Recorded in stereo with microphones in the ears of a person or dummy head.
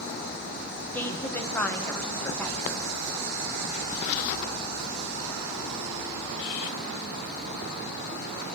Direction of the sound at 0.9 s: 10° left (ahead or behind).